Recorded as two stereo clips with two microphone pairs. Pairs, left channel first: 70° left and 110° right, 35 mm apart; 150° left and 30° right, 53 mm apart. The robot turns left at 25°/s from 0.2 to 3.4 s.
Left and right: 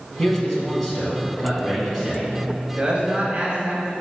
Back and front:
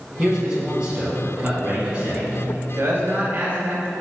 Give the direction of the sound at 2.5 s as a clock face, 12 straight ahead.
2 o'clock.